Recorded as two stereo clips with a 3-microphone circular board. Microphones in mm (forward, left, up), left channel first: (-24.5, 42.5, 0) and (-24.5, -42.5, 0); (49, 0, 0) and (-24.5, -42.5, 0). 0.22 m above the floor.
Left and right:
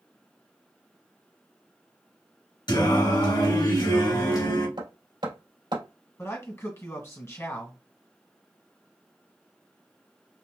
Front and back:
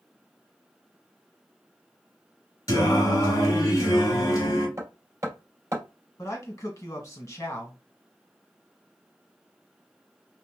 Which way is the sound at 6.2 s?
55° left.